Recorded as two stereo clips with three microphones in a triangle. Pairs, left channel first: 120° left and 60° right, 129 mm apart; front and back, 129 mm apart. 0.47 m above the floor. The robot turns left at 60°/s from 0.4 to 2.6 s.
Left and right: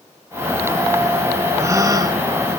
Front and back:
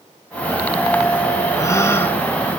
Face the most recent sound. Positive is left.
turn(degrees=-90)